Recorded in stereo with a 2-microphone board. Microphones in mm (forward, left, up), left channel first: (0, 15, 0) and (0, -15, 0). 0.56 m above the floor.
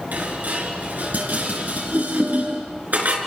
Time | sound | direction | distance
0.1 | dishes clattering | 75° right (ahead or behind) | 4.5 m